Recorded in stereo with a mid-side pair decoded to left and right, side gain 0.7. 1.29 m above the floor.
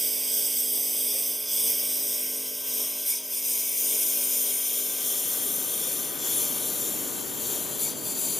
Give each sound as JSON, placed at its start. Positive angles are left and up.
{"t": 0.0, "sound": "a lawn mower", "azimuth_deg": -15}